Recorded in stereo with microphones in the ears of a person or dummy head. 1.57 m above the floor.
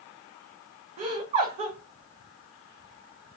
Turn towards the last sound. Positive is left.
turn(degrees=-35)  # may be behind; listen again after turning